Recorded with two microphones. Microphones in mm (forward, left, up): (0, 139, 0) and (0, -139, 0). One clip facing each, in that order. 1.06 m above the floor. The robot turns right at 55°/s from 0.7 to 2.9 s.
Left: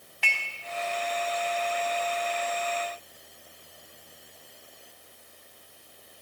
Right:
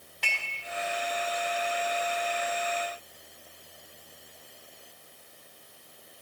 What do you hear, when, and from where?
0.2 s dishes clattering: 45° right (ahead or behind), 4 m